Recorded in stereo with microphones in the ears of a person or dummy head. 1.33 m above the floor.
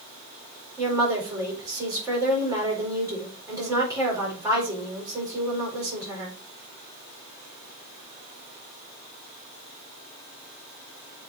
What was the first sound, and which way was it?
A woman speaking, 15° right (ahead or behind).